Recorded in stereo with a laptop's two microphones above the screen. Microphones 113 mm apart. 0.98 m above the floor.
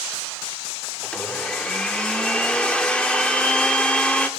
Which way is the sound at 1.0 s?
10° left (ahead or behind).